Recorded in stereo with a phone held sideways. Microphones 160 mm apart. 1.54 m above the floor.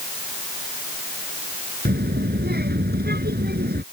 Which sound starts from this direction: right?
A child speaking, at 1.9 s.